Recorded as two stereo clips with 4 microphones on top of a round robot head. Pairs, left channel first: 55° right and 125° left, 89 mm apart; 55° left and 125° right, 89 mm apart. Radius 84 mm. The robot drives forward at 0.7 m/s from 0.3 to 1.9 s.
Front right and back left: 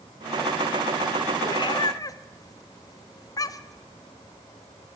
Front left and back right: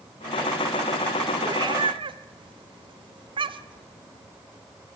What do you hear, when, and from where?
1.4 s a cat meowing: 80° right, 0.8 m; by 3.9 s 105° right, 0.8 m